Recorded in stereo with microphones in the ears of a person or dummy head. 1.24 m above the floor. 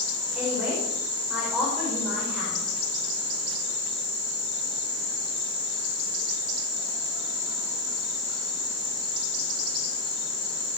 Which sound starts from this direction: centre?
A woman speaking, at 0.3 s.